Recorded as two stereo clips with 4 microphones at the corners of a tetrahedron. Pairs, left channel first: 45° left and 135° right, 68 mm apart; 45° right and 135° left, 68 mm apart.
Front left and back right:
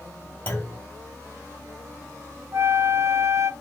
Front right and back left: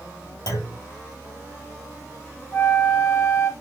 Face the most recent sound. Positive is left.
turn(degrees=-100)